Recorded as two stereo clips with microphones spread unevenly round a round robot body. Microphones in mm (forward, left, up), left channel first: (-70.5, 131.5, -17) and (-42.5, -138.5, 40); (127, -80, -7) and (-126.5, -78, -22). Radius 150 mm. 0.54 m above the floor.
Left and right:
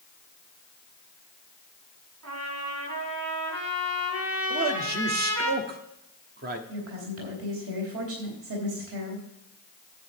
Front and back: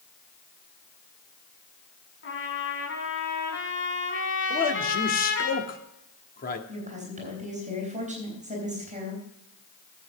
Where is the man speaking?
35° right, 1.2 m.